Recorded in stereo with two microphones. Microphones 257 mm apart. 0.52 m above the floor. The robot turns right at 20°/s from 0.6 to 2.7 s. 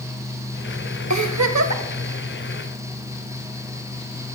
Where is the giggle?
85° right, 0.7 m; by 1.8 s 75° right (ahead or behind), 0.7 m.